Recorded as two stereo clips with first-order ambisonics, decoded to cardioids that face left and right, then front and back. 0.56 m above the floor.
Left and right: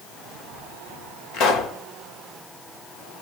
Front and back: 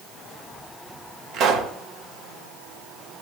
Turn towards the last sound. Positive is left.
turn(degrees=130)